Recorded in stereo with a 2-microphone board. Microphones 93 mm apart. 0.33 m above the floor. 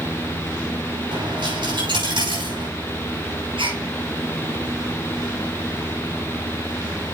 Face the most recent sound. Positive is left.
turn(degrees=-75)  # may be behind; listen again after turning